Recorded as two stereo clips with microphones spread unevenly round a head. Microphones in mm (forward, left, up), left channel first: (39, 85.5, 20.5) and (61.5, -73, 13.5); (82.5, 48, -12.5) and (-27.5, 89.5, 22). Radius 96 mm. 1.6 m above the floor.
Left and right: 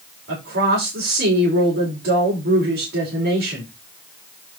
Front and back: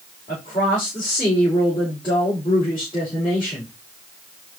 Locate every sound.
0.3 s a woman speaking: 90° right, 4.5 m